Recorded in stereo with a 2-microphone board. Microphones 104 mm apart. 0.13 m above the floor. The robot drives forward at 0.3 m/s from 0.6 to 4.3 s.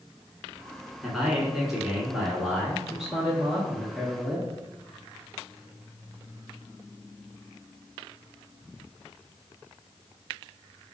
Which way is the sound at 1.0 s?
5° right (ahead or behind).